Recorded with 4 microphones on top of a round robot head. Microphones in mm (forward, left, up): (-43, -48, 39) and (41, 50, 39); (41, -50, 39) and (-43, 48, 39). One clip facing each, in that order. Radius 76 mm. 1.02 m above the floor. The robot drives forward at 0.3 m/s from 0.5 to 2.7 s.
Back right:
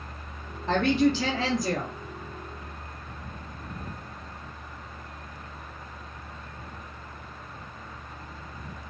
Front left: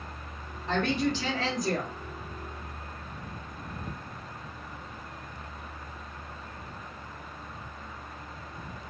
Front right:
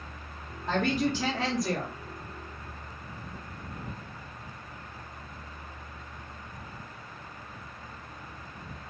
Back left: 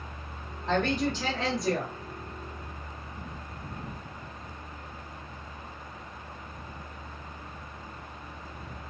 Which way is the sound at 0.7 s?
125° right.